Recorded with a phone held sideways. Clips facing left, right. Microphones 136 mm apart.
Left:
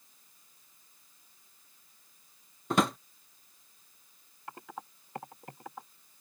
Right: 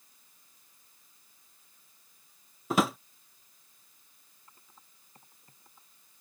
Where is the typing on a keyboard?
80° left.